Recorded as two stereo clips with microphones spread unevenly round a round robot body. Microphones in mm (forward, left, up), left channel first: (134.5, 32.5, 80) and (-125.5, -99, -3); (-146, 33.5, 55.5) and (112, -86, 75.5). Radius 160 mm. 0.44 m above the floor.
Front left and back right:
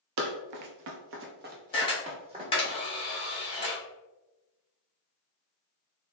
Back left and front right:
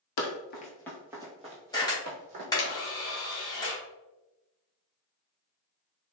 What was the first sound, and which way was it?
Running footsteps, 165° left.